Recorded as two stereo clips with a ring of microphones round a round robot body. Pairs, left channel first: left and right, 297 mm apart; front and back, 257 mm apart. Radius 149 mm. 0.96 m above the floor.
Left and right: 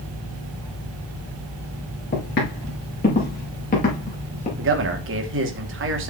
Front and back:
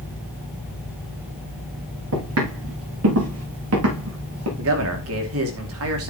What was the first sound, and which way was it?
Footsteps, 150° left.